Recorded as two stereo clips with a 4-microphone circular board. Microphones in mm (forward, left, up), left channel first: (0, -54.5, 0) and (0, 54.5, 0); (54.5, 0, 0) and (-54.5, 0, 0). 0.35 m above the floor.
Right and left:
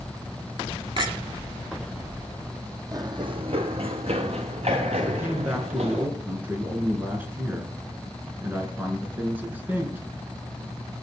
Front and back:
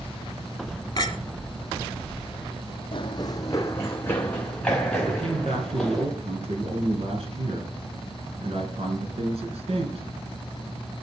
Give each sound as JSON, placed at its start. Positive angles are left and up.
{"t": 1.0, "sound": "a clink", "azimuth_deg": 50, "distance_m": 1.6}
{"t": 2.9, "sound": "running footsteps", "azimuth_deg": 35, "distance_m": 0.9}
{"t": 5.0, "sound": "a man speaking", "azimuth_deg": 165, "distance_m": 3.5}